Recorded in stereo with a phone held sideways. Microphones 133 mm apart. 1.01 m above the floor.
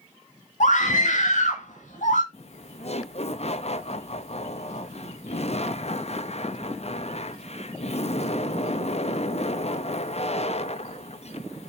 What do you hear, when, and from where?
0.6 s a scream: 70° left (ahead or behind), 1.9 m
2.3 s laughter: 50° left (ahead or behind), 0.8 m